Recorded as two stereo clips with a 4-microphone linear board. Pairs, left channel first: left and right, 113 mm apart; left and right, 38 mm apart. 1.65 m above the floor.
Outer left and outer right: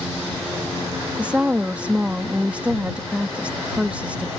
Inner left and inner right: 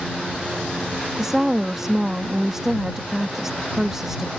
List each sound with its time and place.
1.2 s a woman speaking: 15° right (ahead or behind)